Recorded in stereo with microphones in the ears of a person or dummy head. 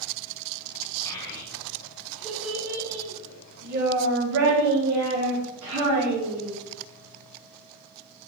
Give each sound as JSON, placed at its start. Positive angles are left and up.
{"t": 1.1, "sound": "a child speaking", "side_deg": 20, "distance_m": 1.7}